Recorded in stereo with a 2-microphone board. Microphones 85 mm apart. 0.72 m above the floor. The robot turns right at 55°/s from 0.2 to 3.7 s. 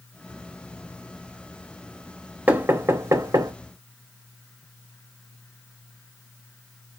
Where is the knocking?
15° right (ahead or behind), 0.9 m; by 3.5 s 45° right (ahead or behind), 0.9 m.